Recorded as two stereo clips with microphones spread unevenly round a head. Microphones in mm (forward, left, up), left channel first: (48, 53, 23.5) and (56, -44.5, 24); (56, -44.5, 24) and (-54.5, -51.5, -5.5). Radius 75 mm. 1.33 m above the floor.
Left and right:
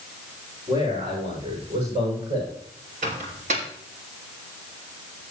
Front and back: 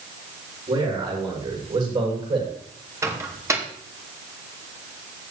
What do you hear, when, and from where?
0.7 s a man speaking: 135° right, 6.5 m; by 2.5 s 140° right, 7 m
3.0 s a microwave: 110° right, 2.5 m